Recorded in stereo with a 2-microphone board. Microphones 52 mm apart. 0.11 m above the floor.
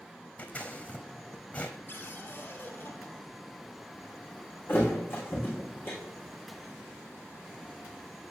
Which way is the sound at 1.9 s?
50° left (ahead or behind).